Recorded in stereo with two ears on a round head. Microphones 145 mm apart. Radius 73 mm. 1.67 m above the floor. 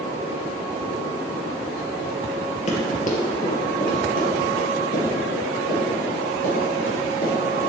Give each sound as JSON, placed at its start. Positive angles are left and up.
{"t": 2.7, "sound": "running footsteps", "side_deg": 45, "distance_m": 2.5}